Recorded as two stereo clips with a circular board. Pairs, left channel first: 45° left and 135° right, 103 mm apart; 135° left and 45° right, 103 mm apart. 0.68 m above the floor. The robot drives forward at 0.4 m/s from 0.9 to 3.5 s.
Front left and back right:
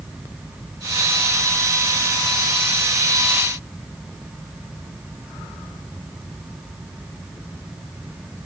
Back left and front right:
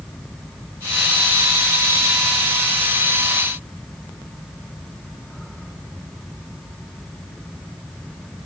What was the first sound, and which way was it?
Only background noise.